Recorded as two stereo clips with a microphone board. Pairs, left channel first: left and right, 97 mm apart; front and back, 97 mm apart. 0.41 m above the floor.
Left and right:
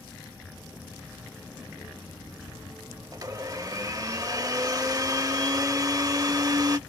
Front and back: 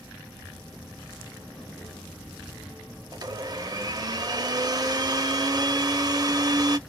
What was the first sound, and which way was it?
A blender, 140° right.